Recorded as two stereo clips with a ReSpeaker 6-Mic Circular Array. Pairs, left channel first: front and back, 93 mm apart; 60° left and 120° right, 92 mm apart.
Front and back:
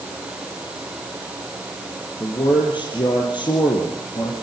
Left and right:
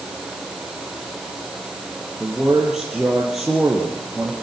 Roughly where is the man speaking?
Ahead right.